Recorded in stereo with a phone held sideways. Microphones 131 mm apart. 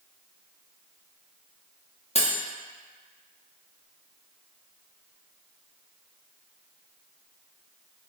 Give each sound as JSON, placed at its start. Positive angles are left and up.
{"t": 2.1, "sound": "cutlery clinking", "side_deg": 50, "distance_m": 0.9}